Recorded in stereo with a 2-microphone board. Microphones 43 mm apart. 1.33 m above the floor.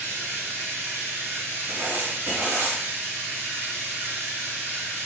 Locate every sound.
0.0 s running water: 65° right (ahead or behind), 3 m
1.7 s writing: 50° right (ahead or behind), 3 m